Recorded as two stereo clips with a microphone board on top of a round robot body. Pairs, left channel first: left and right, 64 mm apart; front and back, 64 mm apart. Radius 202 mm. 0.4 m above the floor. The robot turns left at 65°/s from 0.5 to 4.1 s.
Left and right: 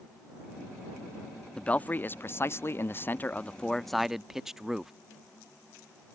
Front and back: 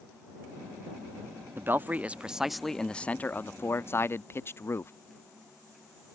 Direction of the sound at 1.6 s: 155° left.